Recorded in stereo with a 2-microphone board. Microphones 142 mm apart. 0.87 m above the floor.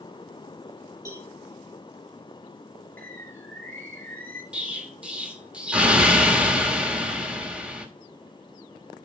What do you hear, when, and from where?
1.1 s a cowbell: 20° right (ahead or behind), 5.5 m
3.0 s a bird: 10° left (ahead or behind), 4 m
4.5 s an explosion: 10° right (ahead or behind), 1.3 m